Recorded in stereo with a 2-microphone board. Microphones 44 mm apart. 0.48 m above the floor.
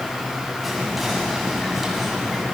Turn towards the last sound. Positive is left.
turn(degrees=0)  # may be behind; listen again after turning